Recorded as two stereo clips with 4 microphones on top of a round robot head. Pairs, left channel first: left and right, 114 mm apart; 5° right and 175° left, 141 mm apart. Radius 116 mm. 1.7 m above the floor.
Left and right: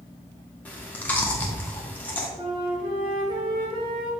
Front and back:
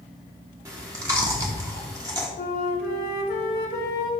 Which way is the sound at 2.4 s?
30° right.